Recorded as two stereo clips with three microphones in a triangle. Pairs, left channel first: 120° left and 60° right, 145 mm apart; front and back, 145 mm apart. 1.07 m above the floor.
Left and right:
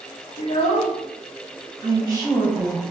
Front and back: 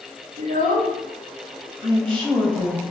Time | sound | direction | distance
0.4 | a child speaking | 175° left | 1.2 m
1.8 | a woman speaking | 125° right | 2.0 m